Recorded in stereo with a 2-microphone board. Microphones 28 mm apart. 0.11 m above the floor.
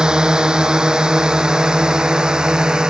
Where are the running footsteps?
I don't hear running footsteps.